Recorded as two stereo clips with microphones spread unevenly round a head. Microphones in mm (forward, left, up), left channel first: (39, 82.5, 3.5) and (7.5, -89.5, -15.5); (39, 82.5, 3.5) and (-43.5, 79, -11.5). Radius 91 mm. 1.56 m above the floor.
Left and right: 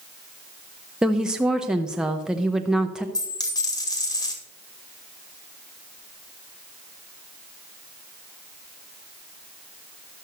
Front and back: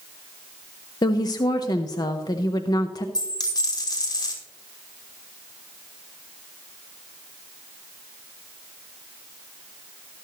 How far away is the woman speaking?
About 0.7 m.